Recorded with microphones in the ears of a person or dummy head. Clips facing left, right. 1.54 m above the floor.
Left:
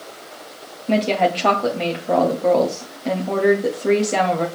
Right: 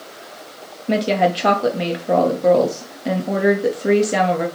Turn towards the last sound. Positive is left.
turn(degrees=-5)  # may be behind; listen again after turning